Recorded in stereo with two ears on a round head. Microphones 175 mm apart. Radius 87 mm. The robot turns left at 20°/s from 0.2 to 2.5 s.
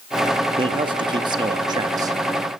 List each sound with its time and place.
0.6 s a man speaking: 25° right (ahead or behind), 0.6 m; by 2.2 s 20° right (ahead or behind), 0.6 m